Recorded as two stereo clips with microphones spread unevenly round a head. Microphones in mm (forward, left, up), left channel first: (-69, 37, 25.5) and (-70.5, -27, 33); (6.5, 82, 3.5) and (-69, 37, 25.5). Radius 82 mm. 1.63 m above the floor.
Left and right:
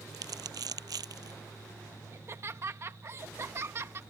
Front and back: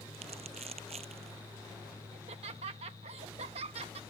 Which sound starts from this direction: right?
Crumpling, at 0.1 s.